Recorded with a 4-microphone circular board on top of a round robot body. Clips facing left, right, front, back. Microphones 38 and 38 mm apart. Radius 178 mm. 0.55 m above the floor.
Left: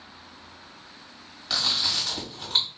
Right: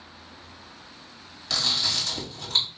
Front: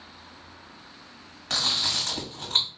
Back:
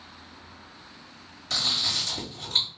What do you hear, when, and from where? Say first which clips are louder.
1.5 s chewing: even, front 1 dB; 10° left, 1.9 m